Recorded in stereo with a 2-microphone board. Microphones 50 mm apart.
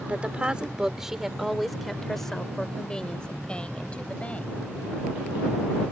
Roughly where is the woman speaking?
Right.